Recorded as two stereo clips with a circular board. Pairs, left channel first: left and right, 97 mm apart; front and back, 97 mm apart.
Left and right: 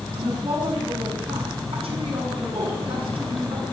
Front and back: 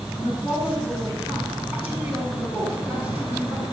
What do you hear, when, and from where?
0.1 s a woman speaking: 105° right, 6.5 m